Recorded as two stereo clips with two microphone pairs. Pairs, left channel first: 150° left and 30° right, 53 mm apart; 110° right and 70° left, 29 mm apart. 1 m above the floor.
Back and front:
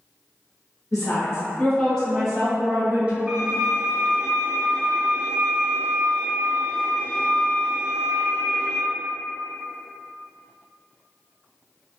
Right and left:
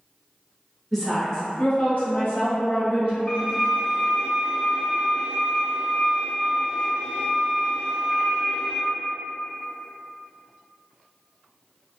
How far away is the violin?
About 1.4 m.